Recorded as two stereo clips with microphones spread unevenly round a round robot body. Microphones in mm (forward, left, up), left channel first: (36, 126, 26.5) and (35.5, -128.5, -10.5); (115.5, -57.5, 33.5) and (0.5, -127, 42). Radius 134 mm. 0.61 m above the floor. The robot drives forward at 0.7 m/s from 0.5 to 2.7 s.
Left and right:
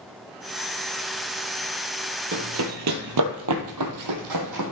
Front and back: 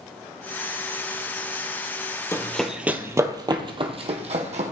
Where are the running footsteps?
40° right, 1.4 m; by 4.7 s 120° right, 2.0 m.